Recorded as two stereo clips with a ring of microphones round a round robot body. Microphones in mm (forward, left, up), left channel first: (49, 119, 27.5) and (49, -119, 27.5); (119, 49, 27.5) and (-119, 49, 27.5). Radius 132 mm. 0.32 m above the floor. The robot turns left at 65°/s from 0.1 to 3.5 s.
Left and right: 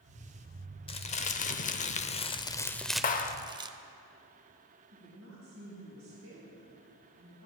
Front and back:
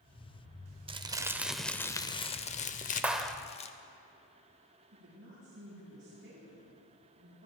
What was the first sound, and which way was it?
Crumpling, 135° left.